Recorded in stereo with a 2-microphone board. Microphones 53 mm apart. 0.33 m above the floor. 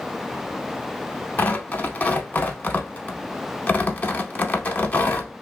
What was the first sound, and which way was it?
Tearing paper, 35° left (ahead or behind).